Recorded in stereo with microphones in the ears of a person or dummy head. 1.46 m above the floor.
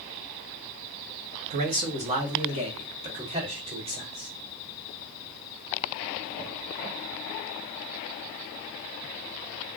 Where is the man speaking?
35° right (ahead or behind), 0.9 m.